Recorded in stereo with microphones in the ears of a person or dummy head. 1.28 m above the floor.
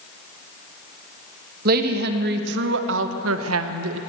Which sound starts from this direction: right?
A woman speaking, at 1.6 s.